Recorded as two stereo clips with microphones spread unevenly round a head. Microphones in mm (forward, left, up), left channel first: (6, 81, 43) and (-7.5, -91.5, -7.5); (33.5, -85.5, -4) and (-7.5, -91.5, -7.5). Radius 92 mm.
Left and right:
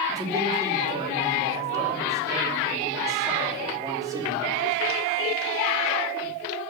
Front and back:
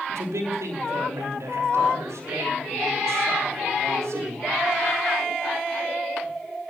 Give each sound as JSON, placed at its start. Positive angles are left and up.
{"t": 0.1, "sound": "a man speaking", "azimuth_deg": -170, "distance_m": 5.0}